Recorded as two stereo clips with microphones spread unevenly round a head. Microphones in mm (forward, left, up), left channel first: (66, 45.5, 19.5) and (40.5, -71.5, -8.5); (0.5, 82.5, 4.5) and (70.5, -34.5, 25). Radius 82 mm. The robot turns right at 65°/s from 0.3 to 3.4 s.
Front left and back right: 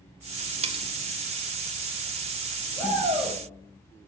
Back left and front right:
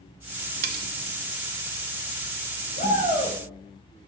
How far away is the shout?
About 5 m.